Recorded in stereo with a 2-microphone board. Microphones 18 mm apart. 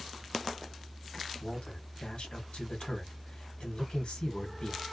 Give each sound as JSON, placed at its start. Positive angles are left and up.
{"t": 1.4, "sound": "a man speaking", "side_deg": 80, "distance_m": 1.0}